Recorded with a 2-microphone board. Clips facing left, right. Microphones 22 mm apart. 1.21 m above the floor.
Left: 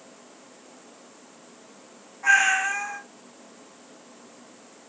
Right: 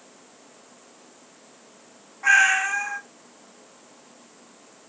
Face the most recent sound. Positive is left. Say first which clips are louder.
# right 2 dB
turn(degrees=-20)  # may be behind; listen again after turning